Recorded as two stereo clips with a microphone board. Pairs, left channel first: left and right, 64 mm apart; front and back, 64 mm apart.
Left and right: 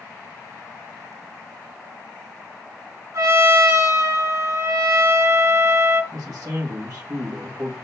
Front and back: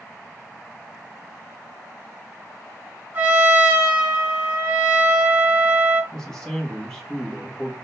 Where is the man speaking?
80° right, 1.0 m.